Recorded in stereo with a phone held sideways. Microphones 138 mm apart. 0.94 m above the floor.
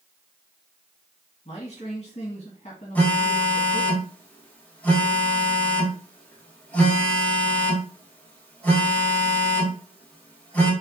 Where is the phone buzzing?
10° left (ahead or behind), 1.3 m.